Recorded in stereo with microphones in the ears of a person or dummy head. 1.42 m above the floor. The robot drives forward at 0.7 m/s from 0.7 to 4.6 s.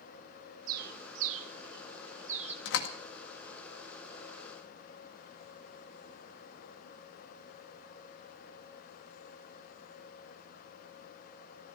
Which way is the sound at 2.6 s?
70° left (ahead or behind).